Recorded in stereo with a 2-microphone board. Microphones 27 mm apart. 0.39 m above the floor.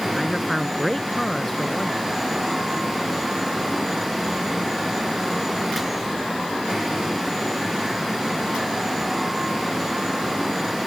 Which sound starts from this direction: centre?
A man speaking, at 0.1 s.